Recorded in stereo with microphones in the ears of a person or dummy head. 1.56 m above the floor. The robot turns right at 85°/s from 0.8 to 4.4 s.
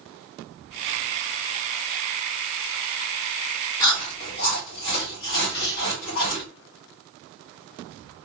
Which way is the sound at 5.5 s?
30° left (ahead or behind).